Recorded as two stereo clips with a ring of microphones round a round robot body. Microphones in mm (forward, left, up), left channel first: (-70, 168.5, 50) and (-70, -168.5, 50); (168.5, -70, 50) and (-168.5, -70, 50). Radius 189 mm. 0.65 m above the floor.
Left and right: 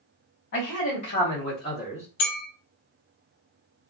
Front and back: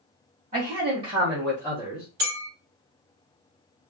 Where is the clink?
130° left, 1.3 m.